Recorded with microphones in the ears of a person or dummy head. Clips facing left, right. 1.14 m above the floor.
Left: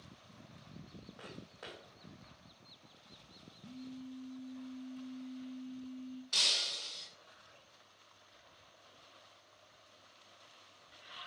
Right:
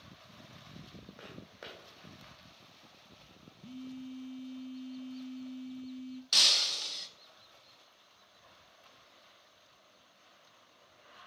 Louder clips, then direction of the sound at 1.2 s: Right 1 dB; 30° right (ahead or behind).